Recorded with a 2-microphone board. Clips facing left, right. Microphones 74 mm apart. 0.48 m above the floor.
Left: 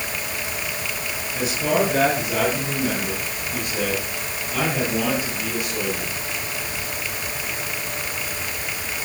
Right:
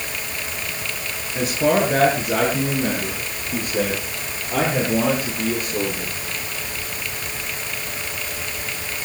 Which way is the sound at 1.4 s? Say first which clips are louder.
Right 3 dB; 30° right (ahead or behind).